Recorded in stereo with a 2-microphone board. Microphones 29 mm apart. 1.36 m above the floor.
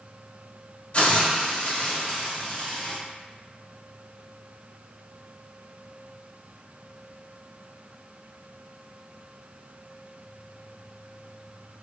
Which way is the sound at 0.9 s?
40° left (ahead or behind).